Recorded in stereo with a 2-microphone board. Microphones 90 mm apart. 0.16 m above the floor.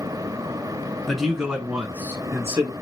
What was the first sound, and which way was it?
A man speaking, centre (ahead or behind).